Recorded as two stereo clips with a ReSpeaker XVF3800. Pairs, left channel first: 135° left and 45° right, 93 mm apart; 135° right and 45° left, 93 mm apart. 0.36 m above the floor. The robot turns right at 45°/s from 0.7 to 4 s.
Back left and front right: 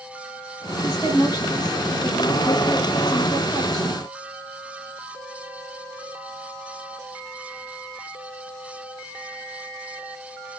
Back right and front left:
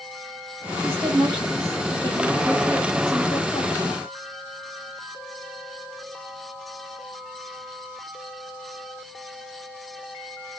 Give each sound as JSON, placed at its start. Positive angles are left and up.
{"t": 0.8, "sound": "a woman speaking", "azimuth_deg": 100, "distance_m": 1.5}